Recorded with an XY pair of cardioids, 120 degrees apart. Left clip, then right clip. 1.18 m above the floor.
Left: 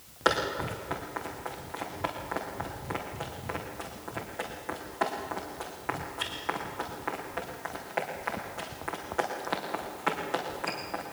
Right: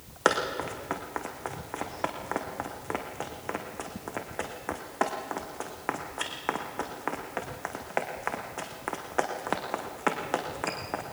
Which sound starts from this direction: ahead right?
Running footsteps, at 0.2 s.